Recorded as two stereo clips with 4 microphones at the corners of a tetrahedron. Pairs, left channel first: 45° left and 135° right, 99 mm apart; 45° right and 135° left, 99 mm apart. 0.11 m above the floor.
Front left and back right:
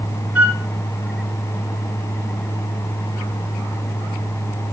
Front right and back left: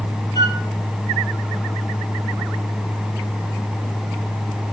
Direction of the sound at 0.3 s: 65° right.